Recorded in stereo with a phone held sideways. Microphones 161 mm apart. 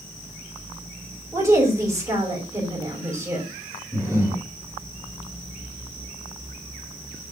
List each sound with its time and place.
1.3 s a woman speaking: 20° right (ahead or behind), 5.5 m
3.9 s breathing: 20° right (ahead or behind), 4 m